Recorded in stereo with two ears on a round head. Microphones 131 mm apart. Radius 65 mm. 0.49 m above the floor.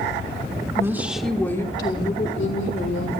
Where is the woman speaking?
20° right (ahead or behind), 1.4 m; by 3.1 s 60° left (ahead or behind), 2.5 m.